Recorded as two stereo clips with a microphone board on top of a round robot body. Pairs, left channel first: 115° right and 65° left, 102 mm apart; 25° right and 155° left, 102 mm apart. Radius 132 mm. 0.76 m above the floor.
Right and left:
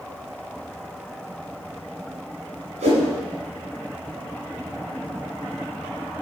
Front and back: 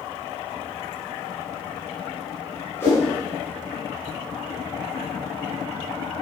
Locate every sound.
2.8 s a whoosh: 45° left, 3.5 m